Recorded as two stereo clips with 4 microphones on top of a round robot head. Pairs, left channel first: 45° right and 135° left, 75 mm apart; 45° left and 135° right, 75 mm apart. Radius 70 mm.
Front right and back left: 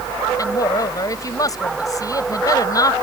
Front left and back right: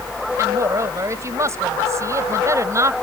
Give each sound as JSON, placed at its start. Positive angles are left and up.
{"t": 0.4, "sound": "a woman speaking", "azimuth_deg": -85}